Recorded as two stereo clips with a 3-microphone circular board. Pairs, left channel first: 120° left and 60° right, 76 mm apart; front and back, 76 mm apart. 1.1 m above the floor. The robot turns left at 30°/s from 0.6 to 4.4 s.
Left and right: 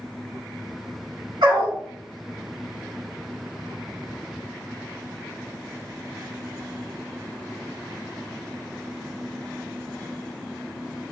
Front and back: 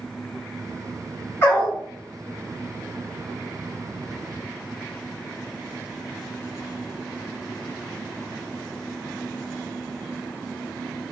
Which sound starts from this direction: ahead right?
A dog barking, at 1.4 s.